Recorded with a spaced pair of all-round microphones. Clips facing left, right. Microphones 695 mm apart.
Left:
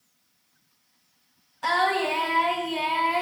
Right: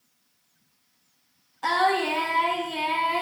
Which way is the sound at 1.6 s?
15° left (ahead or behind).